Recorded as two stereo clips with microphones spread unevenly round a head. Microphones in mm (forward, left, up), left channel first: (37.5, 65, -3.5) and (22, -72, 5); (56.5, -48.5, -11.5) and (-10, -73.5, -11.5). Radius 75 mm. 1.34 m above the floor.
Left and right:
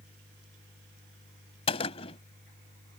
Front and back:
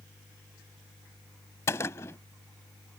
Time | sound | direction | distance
1.7 | a gunshot | 55° left | ?